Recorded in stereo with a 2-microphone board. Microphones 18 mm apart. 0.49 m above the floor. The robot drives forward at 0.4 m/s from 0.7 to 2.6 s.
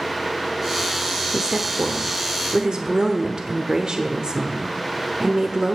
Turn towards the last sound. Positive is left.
turn(degrees=-45)  # may be behind; listen again after turning